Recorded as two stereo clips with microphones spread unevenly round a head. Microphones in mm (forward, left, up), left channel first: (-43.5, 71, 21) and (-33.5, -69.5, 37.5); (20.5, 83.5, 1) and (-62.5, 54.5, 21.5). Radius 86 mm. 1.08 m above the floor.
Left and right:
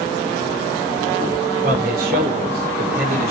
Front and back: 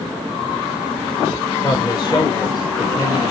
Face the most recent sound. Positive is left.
turn(degrees=-50)